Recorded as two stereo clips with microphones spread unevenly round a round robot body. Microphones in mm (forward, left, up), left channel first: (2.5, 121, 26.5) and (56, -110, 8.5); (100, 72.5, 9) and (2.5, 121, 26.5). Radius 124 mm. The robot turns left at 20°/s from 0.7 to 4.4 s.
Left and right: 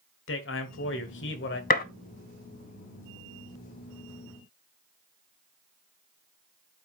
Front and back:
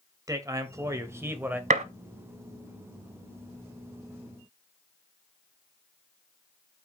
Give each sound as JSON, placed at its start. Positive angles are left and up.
{"t": 0.3, "sound": "a man speaking", "azimuth_deg": 95, "distance_m": 1.8}
{"t": 1.7, "sound": "a gunshot", "azimuth_deg": 160, "distance_m": 0.5}